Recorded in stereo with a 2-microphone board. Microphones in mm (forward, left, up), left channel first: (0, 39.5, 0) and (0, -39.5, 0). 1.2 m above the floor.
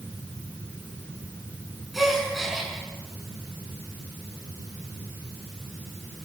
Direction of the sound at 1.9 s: Centre (ahead or behind).